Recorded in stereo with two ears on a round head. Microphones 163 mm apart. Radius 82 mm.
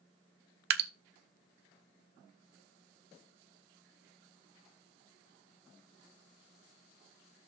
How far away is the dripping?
About 0.8 m.